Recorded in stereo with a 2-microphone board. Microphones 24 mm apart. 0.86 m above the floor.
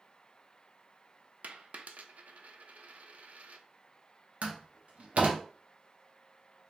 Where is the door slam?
70° right (ahead or behind), 1.1 m.